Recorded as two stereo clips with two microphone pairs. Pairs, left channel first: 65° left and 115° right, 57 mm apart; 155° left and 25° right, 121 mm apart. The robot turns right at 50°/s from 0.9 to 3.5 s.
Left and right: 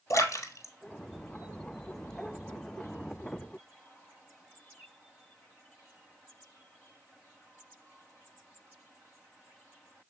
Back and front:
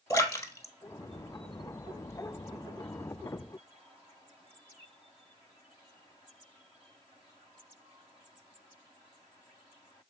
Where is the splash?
90° left, 1.1 m; by 2.1 s 150° left, 1.1 m.